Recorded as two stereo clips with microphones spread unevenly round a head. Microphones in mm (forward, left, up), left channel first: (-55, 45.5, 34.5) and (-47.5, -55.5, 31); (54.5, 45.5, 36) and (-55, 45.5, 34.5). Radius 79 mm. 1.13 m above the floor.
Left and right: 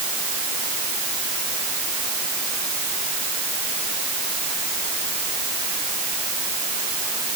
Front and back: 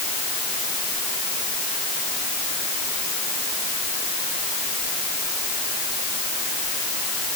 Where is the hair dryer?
I don't hear a hair dryer.